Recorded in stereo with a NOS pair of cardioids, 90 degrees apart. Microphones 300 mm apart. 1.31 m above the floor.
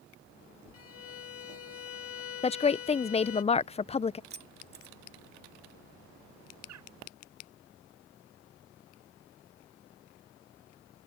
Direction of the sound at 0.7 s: 55° left.